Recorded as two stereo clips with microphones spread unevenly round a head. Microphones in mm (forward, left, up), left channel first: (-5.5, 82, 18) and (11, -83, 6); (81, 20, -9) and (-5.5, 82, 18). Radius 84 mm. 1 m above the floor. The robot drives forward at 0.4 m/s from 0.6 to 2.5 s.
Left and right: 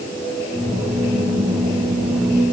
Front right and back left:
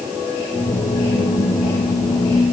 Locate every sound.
Only background noise.